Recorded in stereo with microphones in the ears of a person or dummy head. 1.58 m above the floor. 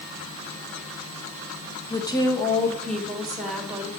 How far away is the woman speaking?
About 1.6 m.